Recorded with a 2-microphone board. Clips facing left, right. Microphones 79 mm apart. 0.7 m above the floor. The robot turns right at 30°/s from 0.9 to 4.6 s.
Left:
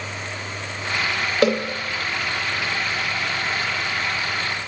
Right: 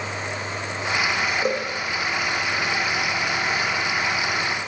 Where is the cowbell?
85° left, 8 m; by 1.6 s 90° left, 8 m.